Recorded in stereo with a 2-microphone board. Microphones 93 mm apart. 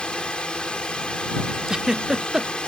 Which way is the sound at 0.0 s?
10° left (ahead or behind).